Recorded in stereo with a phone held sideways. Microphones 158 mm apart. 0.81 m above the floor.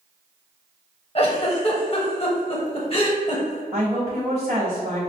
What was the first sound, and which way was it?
A giggle, 35° left (ahead or behind).